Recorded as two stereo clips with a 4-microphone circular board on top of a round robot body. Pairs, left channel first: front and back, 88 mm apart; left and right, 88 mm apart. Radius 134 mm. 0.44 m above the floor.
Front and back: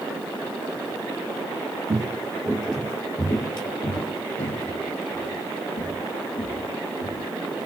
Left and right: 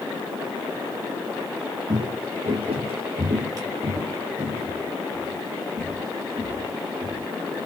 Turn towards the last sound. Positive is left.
turn(degrees=-5)